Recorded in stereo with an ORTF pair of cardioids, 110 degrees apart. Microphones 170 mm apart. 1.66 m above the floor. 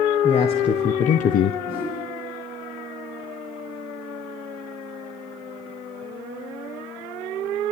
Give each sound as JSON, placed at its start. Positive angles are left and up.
{"t": 0.2, "sound": "a man speaking", "azimuth_deg": 35, "distance_m": 2.0}
{"t": 1.7, "sound": "a whoosh", "azimuth_deg": 65, "distance_m": 8.5}